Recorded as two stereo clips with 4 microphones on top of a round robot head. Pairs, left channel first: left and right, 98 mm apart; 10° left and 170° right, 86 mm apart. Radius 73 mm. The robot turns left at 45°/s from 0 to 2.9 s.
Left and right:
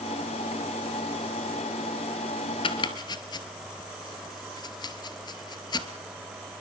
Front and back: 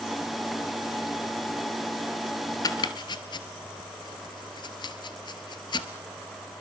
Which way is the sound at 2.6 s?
55° left.